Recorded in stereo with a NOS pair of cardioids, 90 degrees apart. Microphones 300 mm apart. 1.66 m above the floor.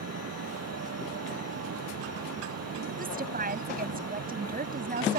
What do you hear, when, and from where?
0.0 s a fan: 55° right
3.0 s a woman speaking: 30° right